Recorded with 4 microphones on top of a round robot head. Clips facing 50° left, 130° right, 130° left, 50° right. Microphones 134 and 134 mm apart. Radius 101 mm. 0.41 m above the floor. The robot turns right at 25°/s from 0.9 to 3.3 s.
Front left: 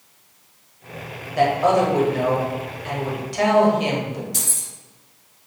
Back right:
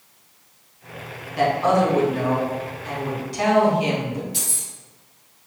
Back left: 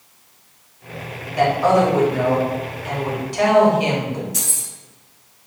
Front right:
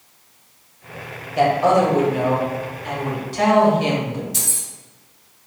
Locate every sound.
1.4 s a woman speaking: 10° left, 1.7 m; by 4.2 s 60° left, 1.7 m
4.3 s keys jangling: 10° left, 1.2 m